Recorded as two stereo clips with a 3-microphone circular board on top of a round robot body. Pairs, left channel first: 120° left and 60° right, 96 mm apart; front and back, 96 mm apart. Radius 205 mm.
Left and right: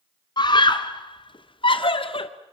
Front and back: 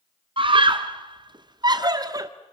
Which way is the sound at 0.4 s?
160° left.